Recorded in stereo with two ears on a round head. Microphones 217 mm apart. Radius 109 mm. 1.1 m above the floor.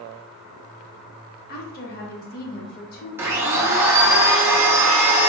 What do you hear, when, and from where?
1.5 s a woman speaking: 40° left (ahead or behind), 0.8 m
3.2 s a blender: 10° right (ahead or behind), 0.8 m